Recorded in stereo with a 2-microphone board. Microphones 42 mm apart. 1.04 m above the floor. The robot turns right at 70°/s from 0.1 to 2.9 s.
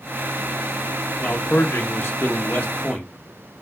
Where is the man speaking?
30° left, 1.7 m; by 3.1 s 150° left, 1.7 m.